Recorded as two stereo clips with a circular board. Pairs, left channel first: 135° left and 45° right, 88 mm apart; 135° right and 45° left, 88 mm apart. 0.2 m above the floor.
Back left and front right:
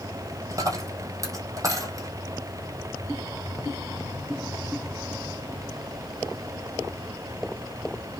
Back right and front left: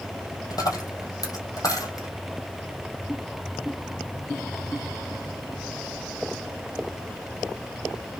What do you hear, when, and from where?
0.5 s a dropped coin: 95° right, 2 m